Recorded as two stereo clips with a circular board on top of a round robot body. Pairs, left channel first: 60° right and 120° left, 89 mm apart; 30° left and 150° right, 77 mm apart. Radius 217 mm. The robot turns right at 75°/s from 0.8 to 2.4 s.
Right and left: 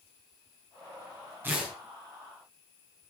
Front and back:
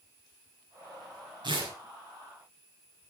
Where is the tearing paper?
170° right, 5.5 m; by 1.7 s 150° right, 5.5 m.